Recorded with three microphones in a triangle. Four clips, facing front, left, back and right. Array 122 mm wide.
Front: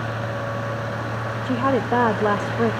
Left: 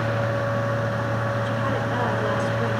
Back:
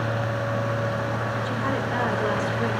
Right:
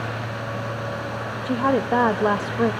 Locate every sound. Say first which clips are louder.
1.4 s a woman speaking: right 4 dB, front 11 dB; 45° right, 1.4 m